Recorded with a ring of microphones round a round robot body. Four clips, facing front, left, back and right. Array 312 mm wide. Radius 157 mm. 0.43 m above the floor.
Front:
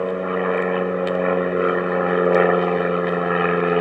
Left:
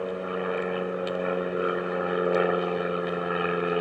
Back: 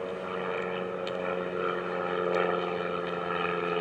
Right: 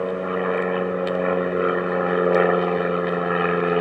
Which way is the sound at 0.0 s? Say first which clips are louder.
Right 6 dB, front 12 dB; 25° right.